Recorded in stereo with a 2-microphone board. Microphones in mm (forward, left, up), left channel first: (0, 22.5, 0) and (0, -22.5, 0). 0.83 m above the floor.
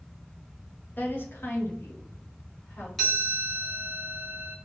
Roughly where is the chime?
Centre.